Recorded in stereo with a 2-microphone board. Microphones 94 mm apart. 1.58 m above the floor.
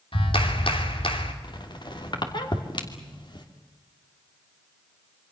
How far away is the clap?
About 3 m.